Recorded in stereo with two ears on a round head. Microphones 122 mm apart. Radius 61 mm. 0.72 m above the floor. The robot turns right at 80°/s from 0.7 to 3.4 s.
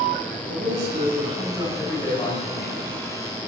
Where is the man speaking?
90° right, 4 m; by 3.4 s 120° left, 4 m.